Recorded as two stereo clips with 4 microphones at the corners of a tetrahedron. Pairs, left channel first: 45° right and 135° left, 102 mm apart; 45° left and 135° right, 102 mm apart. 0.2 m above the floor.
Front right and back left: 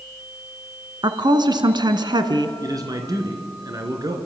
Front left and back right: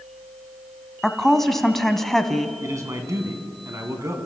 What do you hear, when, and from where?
1.0 s a woman speaking: 130° left, 1.4 m
2.6 s a man speaking: 175° left, 2.5 m